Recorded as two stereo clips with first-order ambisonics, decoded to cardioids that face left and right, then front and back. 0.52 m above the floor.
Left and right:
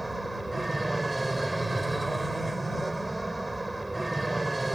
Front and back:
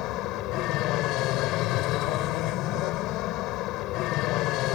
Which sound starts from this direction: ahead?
An aircraft, at 0.0 s.